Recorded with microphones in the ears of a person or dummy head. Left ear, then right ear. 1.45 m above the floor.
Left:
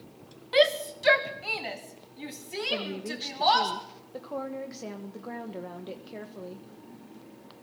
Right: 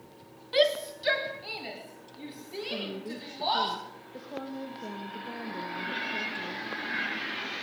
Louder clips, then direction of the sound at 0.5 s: Left 2 dB; 20° left (ahead or behind).